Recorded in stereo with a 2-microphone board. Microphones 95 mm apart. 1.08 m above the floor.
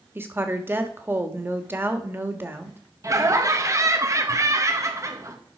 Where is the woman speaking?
25° right (ahead or behind), 1.5 m.